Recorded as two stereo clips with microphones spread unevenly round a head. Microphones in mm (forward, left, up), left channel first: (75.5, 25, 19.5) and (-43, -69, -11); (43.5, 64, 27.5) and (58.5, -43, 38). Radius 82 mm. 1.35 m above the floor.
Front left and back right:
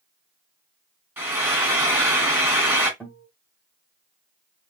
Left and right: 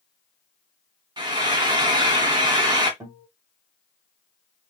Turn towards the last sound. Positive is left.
turn(degrees=-30)